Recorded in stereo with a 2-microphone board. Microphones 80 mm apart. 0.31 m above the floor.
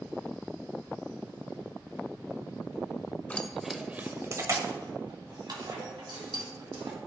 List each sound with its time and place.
3.3 s keys jangling: 15° left (ahead or behind), 0.6 m; by 7.0 s 75° right (ahead or behind), 2.0 m